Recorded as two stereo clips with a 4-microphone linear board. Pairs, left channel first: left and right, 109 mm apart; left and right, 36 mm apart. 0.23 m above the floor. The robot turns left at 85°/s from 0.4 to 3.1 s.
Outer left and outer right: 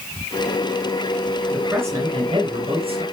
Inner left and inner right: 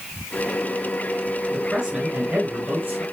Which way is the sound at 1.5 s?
5° left.